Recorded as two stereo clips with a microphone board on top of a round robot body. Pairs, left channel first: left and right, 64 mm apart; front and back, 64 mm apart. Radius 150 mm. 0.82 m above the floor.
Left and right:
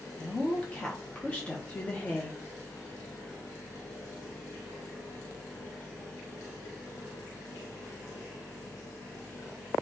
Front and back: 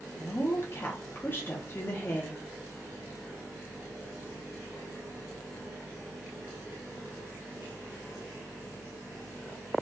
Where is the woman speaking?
30° left, 1.0 m.